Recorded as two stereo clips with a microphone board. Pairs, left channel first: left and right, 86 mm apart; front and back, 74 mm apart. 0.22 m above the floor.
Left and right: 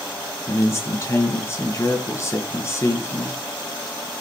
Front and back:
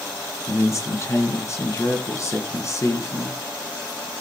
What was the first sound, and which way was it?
A man speaking, 40° left.